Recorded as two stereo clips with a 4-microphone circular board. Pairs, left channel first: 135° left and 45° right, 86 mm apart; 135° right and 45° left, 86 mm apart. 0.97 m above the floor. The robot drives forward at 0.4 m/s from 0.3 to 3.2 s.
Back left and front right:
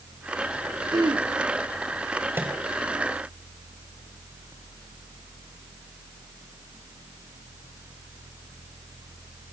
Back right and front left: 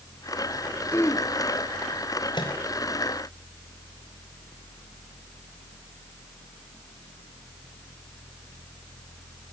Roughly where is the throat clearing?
Right.